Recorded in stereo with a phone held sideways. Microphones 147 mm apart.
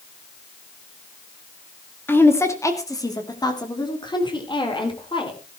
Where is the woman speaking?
15° left (ahead or behind), 2.0 m; by 5.4 s 35° left (ahead or behind), 4.5 m.